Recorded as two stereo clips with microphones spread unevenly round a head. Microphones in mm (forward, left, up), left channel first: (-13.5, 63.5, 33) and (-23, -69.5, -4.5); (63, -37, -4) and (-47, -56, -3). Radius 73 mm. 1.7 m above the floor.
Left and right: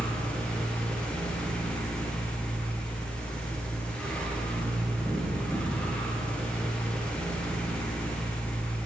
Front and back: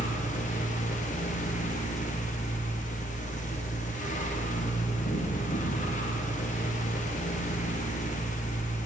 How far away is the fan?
About 0.8 m.